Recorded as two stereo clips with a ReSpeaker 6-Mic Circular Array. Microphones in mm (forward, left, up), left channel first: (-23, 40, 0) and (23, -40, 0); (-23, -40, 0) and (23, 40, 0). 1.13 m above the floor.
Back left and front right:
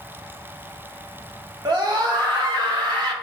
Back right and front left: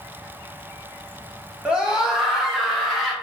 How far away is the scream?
About 1.2 m.